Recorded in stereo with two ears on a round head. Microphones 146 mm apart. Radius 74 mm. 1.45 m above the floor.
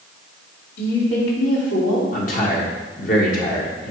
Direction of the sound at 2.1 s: 50° left (ahead or behind).